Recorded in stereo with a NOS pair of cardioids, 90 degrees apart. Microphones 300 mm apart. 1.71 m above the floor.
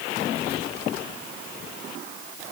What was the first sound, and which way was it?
Only background noise.